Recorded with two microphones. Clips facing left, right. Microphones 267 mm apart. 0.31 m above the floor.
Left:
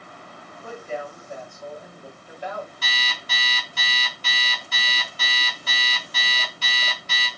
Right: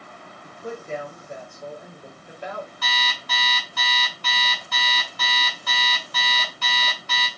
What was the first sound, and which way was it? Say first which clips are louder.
A woman speaking: right 3 dB; 20° right (ahead or behind).